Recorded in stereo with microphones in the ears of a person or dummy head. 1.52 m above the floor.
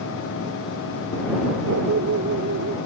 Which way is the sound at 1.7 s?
65° right (ahead or behind).